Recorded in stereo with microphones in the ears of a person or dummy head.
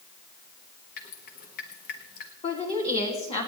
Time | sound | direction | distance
1.0 | dripping | 50° left (ahead or behind) | 1.4 m
2.4 | a woman speaking | 40° left (ahead or behind) | 3 m